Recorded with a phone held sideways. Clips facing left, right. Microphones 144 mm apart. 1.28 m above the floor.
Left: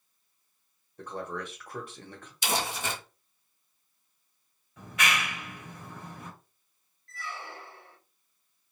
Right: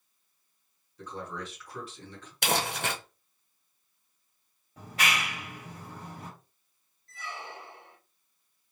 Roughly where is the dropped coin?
No dropped coin in this recording.